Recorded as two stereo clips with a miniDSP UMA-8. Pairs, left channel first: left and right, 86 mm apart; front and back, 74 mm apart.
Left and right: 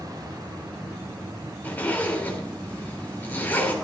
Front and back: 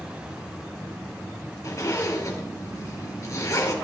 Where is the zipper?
25° left, 2.5 m.